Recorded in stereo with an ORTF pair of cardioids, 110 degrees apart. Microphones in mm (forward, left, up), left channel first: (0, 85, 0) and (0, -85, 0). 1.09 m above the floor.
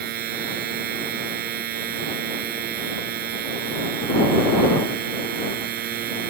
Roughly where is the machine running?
Ahead right.